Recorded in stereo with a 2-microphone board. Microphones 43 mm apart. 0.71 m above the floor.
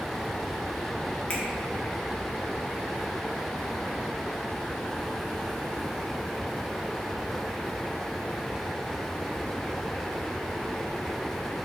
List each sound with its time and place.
1.3 s a finger snap: 35° left (ahead or behind), 0.5 m